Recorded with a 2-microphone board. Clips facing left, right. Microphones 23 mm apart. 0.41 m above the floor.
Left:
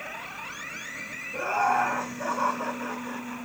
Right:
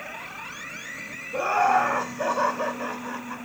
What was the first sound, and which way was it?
Laughter, 55° right (ahead or behind).